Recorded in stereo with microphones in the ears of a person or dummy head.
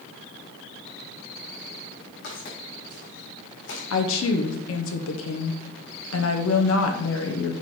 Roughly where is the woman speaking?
Left.